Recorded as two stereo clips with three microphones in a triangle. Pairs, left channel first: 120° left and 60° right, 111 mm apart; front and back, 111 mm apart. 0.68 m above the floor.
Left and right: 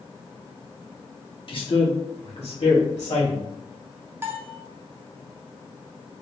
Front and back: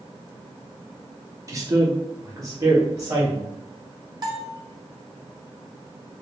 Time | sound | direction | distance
1.5 | a man speaking | 130° left | 0.9 m
4.2 | a bell | 130° right | 0.7 m